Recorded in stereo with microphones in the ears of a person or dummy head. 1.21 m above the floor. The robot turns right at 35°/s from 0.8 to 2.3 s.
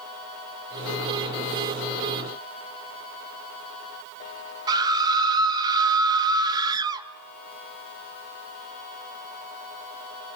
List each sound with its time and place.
4.7 s a scream: 20° right (ahead or behind), 1.7 m